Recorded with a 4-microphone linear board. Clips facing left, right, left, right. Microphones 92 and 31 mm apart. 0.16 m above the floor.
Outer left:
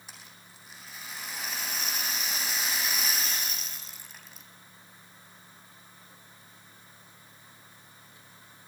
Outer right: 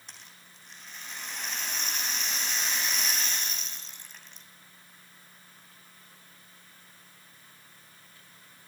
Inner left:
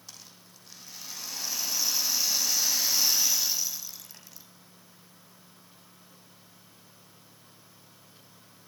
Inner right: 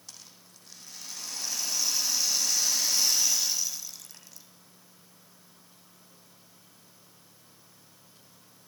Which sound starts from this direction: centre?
A rattle, at 0.1 s.